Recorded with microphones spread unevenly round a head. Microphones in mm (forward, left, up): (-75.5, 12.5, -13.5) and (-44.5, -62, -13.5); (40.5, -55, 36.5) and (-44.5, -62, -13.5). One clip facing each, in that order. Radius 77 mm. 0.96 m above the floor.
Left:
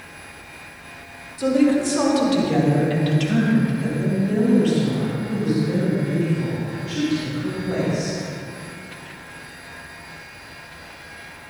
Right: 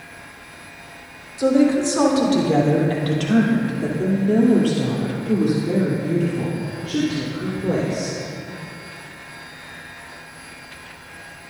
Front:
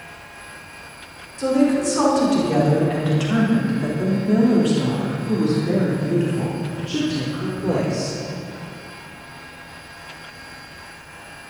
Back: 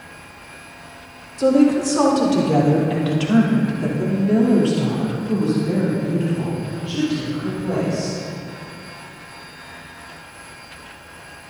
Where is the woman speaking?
135° right, 4.5 m; by 8.2 s 40° right, 4.5 m.